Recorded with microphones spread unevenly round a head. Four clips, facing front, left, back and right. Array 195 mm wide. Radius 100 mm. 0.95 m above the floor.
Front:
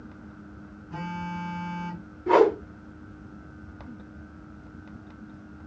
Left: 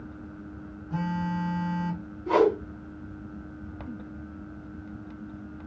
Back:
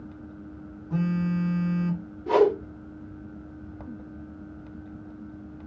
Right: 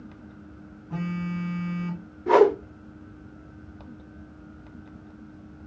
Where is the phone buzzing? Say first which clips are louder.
Left 1 dB, back 7 dB; 155° right, 1.7 m.